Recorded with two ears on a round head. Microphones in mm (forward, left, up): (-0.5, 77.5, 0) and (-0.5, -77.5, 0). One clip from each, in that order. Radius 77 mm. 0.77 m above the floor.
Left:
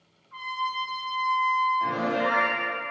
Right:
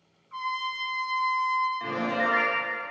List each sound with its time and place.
0.3 s a trumpet: 30° right (ahead or behind), 0.9 m
1.8 s a piano: 35° right (ahead or behind), 1.7 m